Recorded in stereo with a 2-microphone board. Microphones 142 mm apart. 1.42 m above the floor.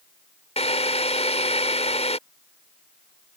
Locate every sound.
0.6 s a drill: 50° left (ahead or behind)